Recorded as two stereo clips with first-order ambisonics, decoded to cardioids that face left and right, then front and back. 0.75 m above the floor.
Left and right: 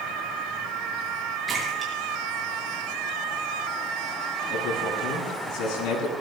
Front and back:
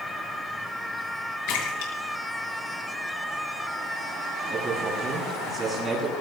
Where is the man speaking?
105° left, 8 m.